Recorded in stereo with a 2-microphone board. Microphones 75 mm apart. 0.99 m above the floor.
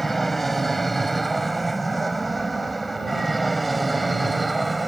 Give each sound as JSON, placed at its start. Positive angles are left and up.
{"t": 0.0, "sound": "an aircraft", "side_deg": 0}